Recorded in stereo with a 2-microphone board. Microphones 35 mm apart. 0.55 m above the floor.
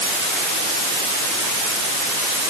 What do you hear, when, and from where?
Only background noise.